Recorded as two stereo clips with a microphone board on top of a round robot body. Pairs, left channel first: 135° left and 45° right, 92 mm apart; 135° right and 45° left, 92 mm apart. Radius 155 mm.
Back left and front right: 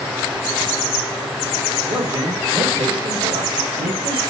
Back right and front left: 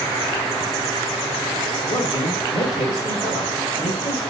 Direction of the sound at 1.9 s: 95° right.